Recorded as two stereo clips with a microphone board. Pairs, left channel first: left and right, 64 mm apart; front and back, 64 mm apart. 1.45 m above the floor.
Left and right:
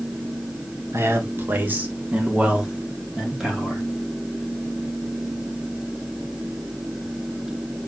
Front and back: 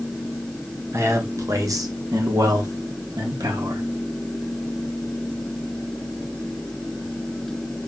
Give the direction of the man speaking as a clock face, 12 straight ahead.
5 o'clock.